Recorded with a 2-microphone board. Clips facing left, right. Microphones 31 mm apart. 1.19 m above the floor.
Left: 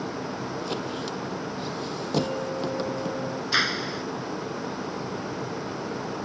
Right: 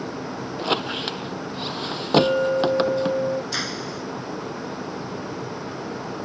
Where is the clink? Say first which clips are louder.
Right 11 dB; 70° right (ahead or behind).